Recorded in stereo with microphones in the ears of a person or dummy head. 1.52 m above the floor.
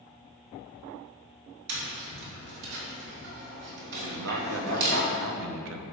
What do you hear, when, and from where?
1.7 s tapping: 60° right (ahead or behind), 2.5 m
4.0 s a man speaking: 80° right, 0.8 m